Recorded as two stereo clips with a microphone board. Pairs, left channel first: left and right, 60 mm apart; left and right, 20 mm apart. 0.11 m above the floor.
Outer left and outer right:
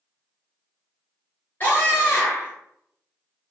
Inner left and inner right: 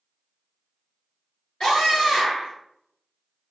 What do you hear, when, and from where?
1.6 s a scream: 40° left (ahead or behind), 1.7 m